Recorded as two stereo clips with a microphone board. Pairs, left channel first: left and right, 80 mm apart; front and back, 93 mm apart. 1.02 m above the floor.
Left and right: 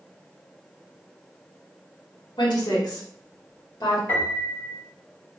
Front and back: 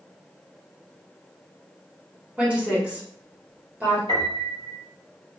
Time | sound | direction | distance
2.4 | a woman speaking | 105° left | 1.3 m
4.1 | a piano | 155° left | 1.2 m